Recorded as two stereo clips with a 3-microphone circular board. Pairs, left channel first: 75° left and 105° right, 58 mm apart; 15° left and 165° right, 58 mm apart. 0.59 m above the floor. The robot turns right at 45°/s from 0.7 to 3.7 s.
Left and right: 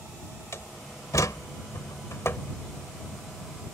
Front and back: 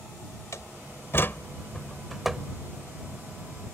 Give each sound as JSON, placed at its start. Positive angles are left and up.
{"t": 0.5, "sound": "a door slam", "azimuth_deg": 40}